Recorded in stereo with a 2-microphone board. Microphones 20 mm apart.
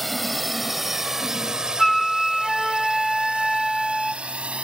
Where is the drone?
5° left (ahead or behind); by 4.6 s 85° right.